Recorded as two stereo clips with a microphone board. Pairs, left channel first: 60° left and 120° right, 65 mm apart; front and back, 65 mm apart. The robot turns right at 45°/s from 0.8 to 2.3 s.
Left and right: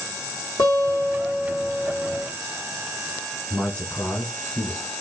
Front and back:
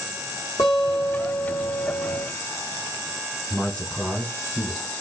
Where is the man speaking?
25° left, 1.4 m.